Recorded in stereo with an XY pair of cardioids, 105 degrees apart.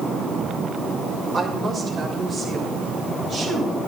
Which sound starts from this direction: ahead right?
A woman speaking, at 1.3 s.